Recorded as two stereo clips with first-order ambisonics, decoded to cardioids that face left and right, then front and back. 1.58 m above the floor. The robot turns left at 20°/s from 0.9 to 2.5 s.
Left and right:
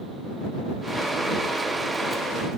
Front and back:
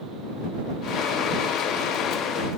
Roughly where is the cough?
No cough in this recording.